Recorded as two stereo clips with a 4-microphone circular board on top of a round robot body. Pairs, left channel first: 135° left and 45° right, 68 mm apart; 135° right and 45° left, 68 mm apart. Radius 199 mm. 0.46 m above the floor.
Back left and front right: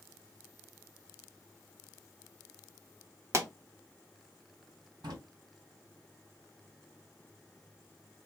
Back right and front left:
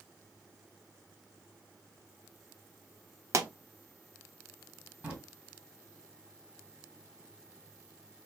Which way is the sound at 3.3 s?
Straight ahead.